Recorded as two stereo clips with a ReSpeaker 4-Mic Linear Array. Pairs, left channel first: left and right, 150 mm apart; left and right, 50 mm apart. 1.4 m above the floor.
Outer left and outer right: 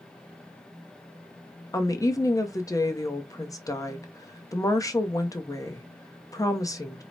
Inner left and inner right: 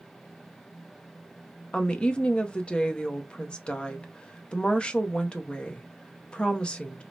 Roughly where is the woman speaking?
Left.